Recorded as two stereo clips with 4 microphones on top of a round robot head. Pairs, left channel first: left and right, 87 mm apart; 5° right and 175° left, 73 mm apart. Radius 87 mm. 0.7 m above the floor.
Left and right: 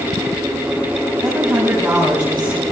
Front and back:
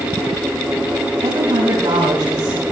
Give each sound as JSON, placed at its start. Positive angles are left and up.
{"t": 1.2, "sound": "a woman speaking", "azimuth_deg": -160, "distance_m": 5.5}